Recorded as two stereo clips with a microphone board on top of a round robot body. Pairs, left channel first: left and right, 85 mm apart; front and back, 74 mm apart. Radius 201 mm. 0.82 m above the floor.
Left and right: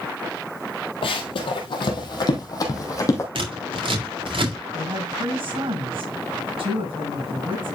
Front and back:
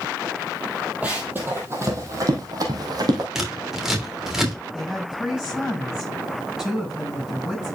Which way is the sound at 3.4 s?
95° right.